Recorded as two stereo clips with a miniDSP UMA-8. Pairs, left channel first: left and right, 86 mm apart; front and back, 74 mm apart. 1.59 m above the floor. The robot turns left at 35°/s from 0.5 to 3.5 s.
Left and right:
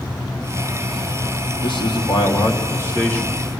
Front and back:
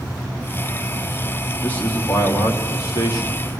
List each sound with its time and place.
1.6 s a man speaking: 70° left, 4 m; by 3.6 s 5° left, 4 m